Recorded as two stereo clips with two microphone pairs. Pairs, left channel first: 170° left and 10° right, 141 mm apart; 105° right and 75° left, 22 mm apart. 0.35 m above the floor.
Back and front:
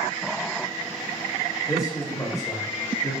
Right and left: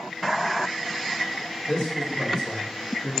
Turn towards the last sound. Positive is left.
turn(degrees=-140)